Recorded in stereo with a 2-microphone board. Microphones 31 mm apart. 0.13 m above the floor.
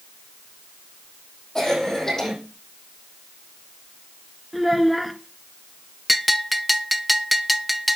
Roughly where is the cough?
Centre.